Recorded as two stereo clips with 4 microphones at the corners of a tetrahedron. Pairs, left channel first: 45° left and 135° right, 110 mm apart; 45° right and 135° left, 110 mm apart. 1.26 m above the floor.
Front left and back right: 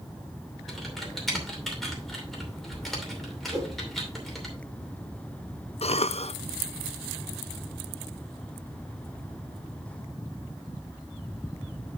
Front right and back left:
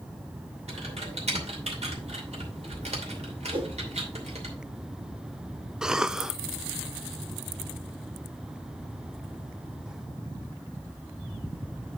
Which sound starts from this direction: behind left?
Typing on a keyboard, at 0.7 s.